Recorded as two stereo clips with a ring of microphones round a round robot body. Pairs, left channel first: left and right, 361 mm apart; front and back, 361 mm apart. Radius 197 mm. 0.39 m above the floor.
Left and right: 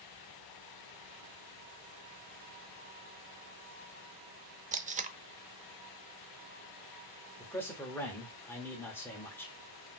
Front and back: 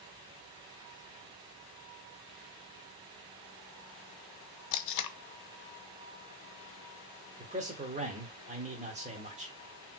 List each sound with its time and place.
4.7 s tape being pulled: 25° right, 0.6 m
7.4 s a man speaking: 160° left, 1.1 m